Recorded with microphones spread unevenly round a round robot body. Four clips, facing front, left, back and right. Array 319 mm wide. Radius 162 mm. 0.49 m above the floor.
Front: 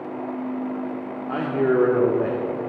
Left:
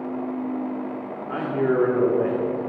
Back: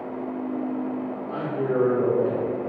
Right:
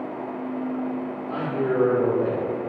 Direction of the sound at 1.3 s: 15° left.